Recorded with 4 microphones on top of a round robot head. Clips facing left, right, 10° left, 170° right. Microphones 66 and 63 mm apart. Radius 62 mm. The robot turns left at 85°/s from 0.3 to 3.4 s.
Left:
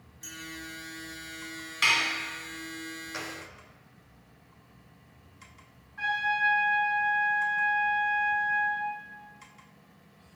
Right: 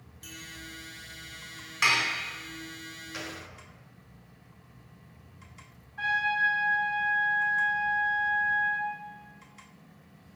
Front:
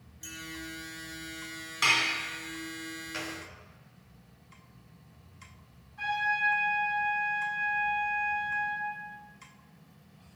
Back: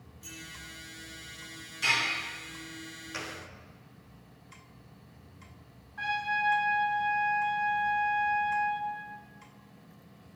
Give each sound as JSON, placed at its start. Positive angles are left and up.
{"t": 0.2, "sound": "a clink", "azimuth_deg": 25, "distance_m": 3.0}
{"t": 1.8, "sound": "dishes clattering", "azimuth_deg": -25, "distance_m": 1.6}
{"t": 3.1, "sound": "a gunshot", "azimuth_deg": 120, "distance_m": 1.1}
{"t": 6.0, "sound": "a trumpet", "azimuth_deg": 165, "distance_m": 2.5}